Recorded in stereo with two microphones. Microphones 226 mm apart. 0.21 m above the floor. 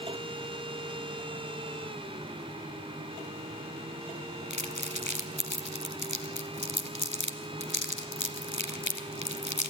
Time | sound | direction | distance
4.5 | crumpling | 55° left (ahead or behind) | 1.3 m